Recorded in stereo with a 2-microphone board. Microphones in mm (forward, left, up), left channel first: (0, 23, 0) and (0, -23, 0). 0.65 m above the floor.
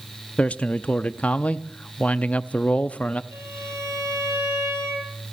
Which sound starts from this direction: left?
A man speaking, at 0.4 s.